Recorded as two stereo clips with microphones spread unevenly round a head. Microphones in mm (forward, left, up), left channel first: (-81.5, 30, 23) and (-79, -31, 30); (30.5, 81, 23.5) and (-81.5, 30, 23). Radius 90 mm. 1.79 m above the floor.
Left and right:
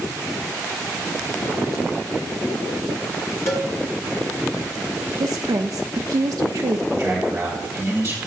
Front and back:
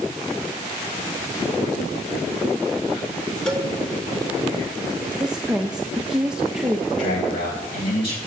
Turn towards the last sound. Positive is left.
turn(degrees=-5)